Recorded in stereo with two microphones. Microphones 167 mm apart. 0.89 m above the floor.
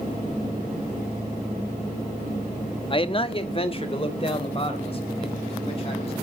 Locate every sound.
2.9 s a man speaking: 30° left (ahead or behind), 0.9 m; by 6.1 s 35° left (ahead or behind), 5.5 m